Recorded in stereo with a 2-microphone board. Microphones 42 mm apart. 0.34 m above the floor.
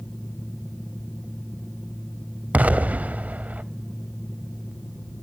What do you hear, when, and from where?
2.5 s an explosion: 40° right (ahead or behind), 0.7 m